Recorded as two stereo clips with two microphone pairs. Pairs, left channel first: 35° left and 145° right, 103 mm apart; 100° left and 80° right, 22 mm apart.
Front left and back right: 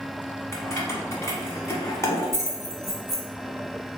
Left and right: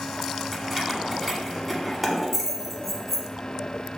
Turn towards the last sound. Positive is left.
turn(degrees=10)